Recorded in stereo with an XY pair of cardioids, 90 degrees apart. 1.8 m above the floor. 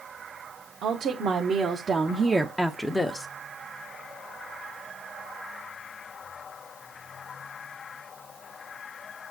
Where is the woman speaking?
70° right, 1.8 m; by 3.3 s 30° left, 1.1 m.